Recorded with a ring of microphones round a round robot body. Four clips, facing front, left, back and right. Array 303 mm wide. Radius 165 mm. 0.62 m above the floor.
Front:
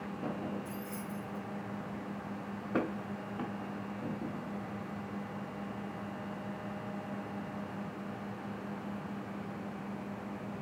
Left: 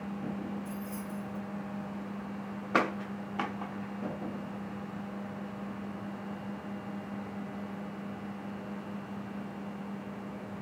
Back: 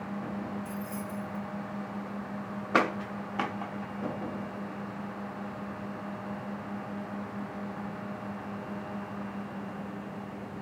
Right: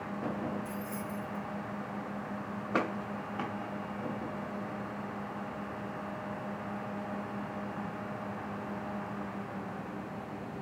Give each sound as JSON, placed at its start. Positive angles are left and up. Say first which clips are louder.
{"t": 0.7, "sound": "keys jangling", "louder": "right 1 dB, back 4 dB", "azimuth_deg": -120, "distance_m": 2.0}